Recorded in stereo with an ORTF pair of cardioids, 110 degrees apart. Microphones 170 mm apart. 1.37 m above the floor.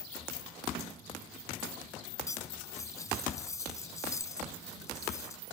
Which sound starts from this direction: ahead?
Cutlery clinking, at 2.3 s.